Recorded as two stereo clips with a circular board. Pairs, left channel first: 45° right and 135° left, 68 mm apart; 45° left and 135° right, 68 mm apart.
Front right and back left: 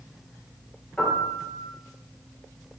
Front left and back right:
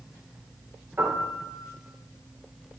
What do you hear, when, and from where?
1.0 s a piano: 105° right, 1.8 m